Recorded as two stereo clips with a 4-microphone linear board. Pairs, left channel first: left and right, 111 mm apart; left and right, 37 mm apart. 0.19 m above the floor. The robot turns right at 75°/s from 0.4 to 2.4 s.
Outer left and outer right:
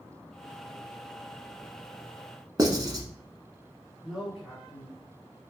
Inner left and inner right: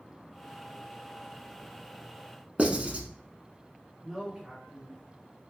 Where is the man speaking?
Centre (ahead or behind), 1.2 m.